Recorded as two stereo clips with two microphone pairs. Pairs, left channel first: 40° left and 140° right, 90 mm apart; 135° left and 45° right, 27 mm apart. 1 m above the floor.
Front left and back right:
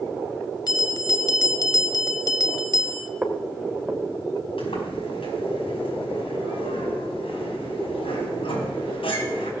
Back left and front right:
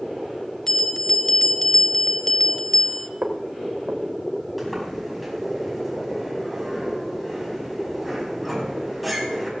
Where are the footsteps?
60° right, 3 m.